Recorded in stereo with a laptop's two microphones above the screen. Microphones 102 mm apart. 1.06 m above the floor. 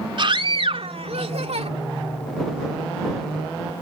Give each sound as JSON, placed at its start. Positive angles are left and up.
{"t": 0.2, "sound": "a scream", "side_deg": -50}